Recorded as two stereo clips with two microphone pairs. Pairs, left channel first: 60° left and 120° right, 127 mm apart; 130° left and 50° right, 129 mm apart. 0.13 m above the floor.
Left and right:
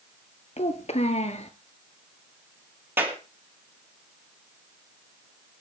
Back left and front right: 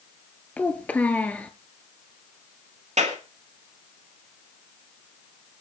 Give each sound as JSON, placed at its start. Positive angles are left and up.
{"t": 0.6, "sound": "a child speaking", "azimuth_deg": 55, "distance_m": 1.4}
{"t": 3.0, "sound": "a clap", "azimuth_deg": -45, "distance_m": 3.0}